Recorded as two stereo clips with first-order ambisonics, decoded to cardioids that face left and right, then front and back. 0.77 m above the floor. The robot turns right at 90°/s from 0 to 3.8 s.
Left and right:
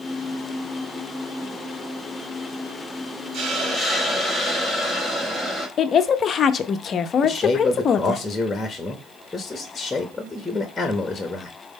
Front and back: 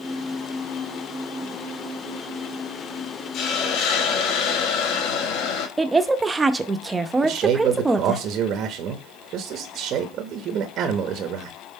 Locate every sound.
3.3 s a hiss: 45° right, 1.0 m; by 5.7 s 5° right, 1.0 m
5.8 s a woman speaking: 115° left, 0.5 m
7.2 s a man speaking: 170° left, 0.8 m